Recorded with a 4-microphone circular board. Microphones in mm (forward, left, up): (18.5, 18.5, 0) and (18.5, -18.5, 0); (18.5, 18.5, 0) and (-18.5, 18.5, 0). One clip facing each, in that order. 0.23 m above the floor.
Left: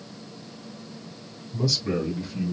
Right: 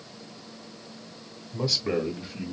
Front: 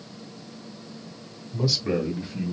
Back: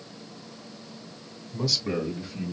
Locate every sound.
1.5 s a man speaking: 70° right, 1.7 m; by 2.5 s straight ahead, 1.8 m